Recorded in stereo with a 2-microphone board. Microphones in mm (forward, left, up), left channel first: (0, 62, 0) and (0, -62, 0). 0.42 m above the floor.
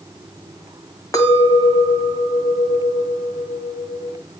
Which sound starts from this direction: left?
A clink, at 1.1 s.